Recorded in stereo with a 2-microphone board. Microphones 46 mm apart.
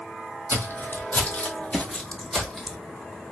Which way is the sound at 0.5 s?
50° left (ahead or behind).